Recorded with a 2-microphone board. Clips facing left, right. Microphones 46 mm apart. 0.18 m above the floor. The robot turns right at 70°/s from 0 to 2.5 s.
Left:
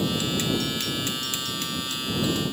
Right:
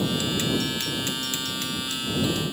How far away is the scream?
I don't hear a scream.